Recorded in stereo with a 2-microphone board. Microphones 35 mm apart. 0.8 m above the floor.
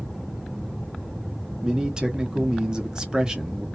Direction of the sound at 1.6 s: 20° right (ahead or behind).